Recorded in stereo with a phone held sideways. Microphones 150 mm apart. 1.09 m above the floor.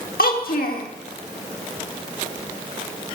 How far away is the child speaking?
About 1.4 m.